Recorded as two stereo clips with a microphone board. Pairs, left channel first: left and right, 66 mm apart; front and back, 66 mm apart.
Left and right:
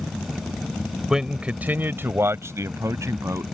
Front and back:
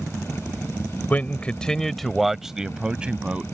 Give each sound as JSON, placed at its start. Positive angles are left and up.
{"t": 1.1, "sound": "a man speaking", "azimuth_deg": -20}